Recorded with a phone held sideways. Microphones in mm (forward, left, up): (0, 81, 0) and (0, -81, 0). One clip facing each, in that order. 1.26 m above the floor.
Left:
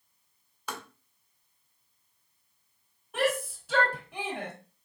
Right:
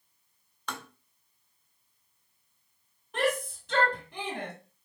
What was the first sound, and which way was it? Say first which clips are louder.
Tapping: even; 10° left (ahead or behind).